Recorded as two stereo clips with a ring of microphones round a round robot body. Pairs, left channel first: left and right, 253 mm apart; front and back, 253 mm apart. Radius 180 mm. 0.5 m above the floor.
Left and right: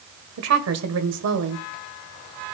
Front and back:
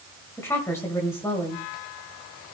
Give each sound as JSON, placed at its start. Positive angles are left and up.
{"t": 0.4, "sound": "a woman speaking", "azimuth_deg": -80, "distance_m": 1.9}